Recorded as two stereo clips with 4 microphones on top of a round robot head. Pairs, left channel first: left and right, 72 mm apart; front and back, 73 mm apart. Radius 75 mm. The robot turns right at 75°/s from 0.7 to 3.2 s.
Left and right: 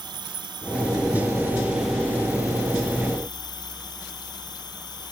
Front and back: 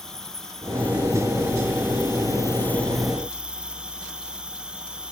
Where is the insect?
85° right; by 5.1 s 100° left.